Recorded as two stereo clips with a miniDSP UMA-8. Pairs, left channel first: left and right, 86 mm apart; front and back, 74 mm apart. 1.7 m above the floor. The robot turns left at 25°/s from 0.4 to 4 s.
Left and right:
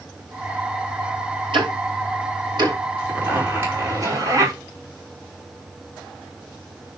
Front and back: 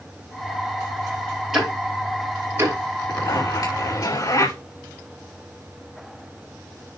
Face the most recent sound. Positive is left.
turn(degrees=-40)